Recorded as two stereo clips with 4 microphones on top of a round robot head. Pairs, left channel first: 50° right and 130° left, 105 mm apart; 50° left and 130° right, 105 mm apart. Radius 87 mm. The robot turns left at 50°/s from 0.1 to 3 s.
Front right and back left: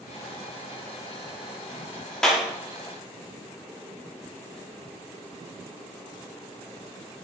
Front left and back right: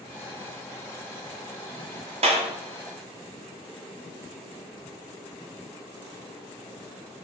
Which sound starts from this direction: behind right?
A clap, at 2.2 s.